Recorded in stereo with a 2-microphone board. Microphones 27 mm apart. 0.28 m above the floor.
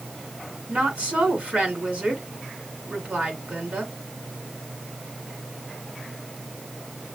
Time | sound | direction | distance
0.7 | a woman speaking | 45° right (ahead or behind) | 3.5 m